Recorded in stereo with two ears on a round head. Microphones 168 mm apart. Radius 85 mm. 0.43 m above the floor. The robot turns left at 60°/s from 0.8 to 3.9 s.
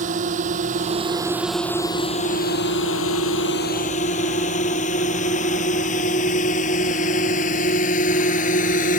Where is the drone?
45° right (ahead or behind); by 9.0 s 45° left (ahead or behind).